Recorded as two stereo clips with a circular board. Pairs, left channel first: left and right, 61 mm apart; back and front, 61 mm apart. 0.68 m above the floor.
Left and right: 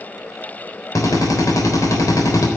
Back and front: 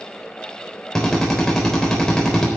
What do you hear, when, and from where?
0.9 s a drill: 100° left, 3.5 m